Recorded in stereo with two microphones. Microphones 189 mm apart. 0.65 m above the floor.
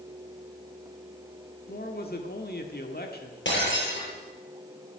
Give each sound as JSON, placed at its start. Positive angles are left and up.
{"t": 1.7, "sound": "a man speaking", "side_deg": 55, "distance_m": 1.4}
{"t": 3.5, "sound": "breaking glass", "side_deg": 90, "distance_m": 8.5}